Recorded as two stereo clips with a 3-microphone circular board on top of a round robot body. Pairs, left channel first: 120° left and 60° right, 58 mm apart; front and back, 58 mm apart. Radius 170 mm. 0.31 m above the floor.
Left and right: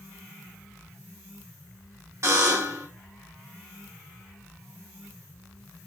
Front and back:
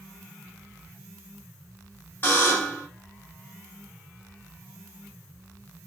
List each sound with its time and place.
2.2 s a buzzer: 55° right, 2.5 m